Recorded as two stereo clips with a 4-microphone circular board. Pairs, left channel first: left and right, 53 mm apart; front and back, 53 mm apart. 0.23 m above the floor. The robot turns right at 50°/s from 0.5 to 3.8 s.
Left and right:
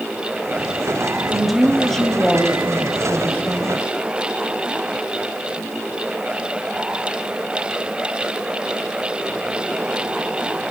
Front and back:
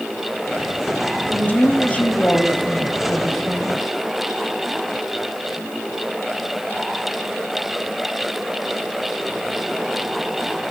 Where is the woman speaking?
20° right, 1.3 m; by 3.8 s 110° left, 1.3 m.